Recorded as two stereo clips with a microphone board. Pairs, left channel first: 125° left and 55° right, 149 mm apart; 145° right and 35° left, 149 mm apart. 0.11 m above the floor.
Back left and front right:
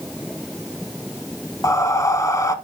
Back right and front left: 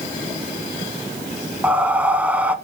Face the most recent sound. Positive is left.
turn(degrees=100)